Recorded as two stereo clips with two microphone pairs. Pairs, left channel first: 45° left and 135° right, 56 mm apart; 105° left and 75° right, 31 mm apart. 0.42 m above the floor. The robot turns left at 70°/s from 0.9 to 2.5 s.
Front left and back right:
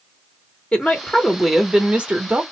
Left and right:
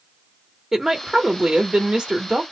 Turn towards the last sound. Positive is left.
turn(degrees=-120)